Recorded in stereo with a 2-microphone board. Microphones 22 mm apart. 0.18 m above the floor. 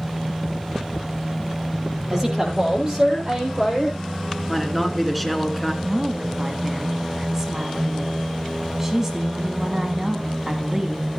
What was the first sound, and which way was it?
A woman speaking, 20° right (ahead or behind).